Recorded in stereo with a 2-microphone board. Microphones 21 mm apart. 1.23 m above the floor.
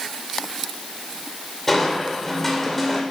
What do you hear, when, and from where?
1.7 s crushing: 10° left (ahead or behind), 3 m